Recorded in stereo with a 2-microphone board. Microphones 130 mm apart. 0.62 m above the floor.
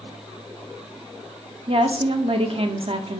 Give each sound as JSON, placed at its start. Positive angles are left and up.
{"t": 1.7, "sound": "a woman speaking", "side_deg": -50, "distance_m": 0.9}